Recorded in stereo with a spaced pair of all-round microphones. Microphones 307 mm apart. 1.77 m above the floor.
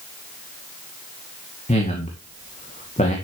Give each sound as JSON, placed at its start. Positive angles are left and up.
{"t": 1.7, "sound": "a man speaking", "side_deg": 20, "distance_m": 2.0}